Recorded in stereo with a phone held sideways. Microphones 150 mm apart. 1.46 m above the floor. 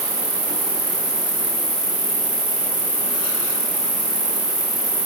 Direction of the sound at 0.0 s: 50° right (ahead or behind).